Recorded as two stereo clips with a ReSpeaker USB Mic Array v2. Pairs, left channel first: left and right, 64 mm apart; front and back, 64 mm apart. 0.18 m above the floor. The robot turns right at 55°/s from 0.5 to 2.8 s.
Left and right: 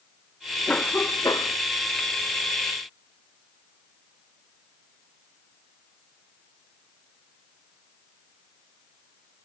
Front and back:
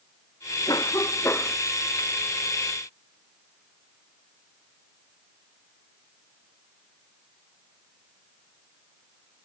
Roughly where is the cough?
Ahead.